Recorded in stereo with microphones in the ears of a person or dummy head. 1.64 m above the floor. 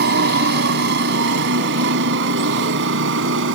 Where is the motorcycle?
50° right (ahead or behind); by 3.6 s 65° right (ahead or behind).